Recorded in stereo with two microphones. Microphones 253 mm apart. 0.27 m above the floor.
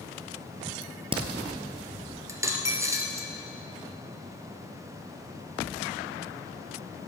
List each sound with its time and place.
0.8 s a crack: 20° right (ahead or behind), 1.1 m
2.3 s a dropped coin: 10° right (ahead or behind), 1.0 m